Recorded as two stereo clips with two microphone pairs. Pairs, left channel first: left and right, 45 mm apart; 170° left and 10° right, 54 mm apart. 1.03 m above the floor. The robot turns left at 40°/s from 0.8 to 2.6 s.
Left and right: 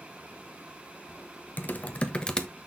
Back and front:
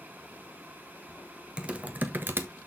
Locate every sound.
1.6 s typing on a keyboard: 55° left, 1.2 m; by 2.5 s 15° left, 1.2 m